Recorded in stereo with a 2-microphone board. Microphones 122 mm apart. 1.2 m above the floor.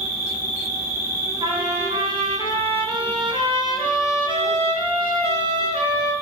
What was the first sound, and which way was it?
An insect, 25° left (ahead or behind).